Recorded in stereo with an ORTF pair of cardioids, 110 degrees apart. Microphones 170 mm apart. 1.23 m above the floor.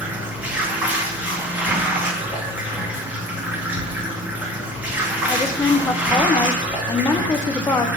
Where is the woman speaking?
20° left, 0.6 m.